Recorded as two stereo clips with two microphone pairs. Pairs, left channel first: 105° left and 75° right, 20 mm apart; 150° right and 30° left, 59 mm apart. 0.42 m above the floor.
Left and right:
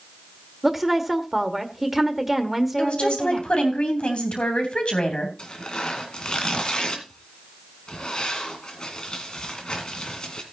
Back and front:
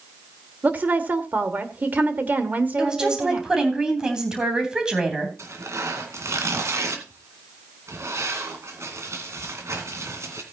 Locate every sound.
0.6 s a woman speaking: 5° left, 1.5 m
2.8 s a woman speaking: 105° left, 3 m
5.4 s tearing paper: 60° left, 2 m